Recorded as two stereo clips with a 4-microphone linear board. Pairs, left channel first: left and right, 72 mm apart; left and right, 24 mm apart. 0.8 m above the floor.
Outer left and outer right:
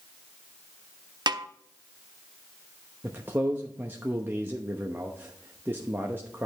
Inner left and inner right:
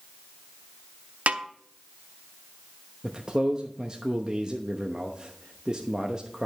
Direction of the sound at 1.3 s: 75° right (ahead or behind).